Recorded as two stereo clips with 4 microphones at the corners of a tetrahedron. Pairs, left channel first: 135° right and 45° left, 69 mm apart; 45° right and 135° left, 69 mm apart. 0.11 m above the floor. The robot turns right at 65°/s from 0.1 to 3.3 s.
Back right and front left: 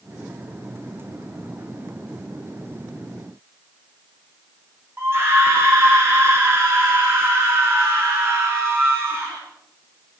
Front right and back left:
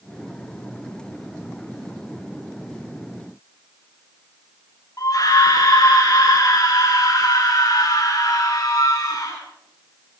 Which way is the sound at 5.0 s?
10° right.